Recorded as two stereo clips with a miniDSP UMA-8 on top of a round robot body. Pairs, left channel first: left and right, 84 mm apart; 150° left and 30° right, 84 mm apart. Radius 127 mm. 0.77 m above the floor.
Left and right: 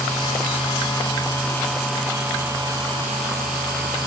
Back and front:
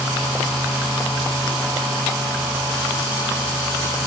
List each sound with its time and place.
Only background noise.